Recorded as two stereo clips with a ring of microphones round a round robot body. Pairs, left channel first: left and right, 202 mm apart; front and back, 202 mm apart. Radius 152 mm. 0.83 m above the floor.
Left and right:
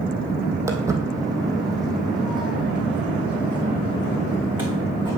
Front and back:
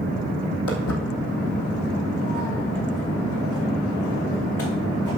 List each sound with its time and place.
0.7 s footsteps: 15° right, 2 m; by 5.2 s 25° right, 4.5 m